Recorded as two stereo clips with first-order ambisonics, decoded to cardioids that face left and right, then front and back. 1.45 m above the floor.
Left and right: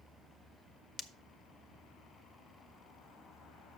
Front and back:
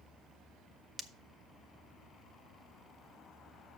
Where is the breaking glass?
110° left, 0.5 m.